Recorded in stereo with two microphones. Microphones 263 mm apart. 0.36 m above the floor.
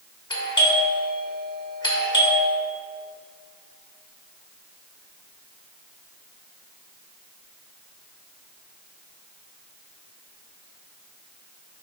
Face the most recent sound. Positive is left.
turn(degrees=15)  # may be behind; listen again after turning